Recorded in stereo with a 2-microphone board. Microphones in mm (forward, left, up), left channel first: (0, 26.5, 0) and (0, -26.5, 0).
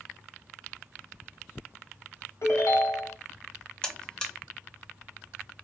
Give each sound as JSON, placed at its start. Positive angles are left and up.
{"t": 2.4, "sound": "a ringtone", "side_deg": 75, "distance_m": 1.1}
{"t": 3.8, "sound": "a buzzer", "side_deg": 15, "distance_m": 0.6}